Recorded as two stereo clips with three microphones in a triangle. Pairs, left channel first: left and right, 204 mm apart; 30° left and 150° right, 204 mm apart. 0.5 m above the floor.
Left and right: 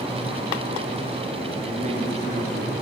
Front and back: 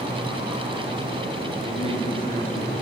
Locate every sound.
1.6 s a man speaking: 35° right, 6.5 m; by 2.7 s 30° right, 7 m